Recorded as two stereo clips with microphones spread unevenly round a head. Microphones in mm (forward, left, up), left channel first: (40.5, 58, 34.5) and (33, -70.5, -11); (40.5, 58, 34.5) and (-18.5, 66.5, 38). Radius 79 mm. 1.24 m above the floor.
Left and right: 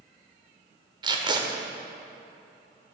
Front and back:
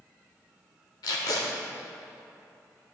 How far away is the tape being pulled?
About 1.5 m.